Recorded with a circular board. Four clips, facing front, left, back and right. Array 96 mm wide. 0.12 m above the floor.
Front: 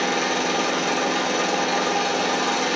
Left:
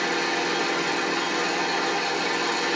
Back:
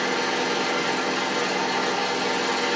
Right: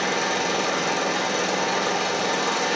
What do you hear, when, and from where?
0.0 s an engine running: 30° right, 1.1 m